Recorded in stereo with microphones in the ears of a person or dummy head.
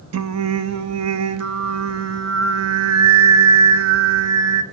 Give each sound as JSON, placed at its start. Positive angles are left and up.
{"t": 0.1, "sound": "singing", "side_deg": -85, "distance_m": 1.0}